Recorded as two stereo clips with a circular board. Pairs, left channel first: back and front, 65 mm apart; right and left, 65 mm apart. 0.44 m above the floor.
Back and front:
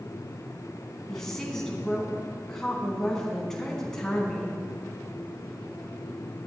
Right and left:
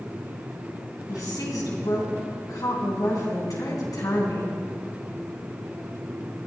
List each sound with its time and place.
1.1 s a woman speaking: 100° right, 3.5 m